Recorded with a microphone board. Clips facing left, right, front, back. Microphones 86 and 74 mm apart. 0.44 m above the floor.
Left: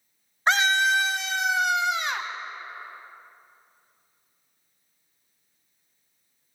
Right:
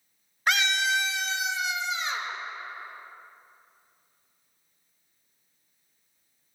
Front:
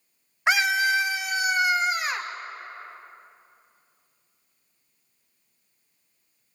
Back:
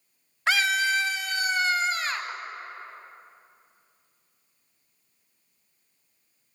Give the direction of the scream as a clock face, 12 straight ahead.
10 o'clock.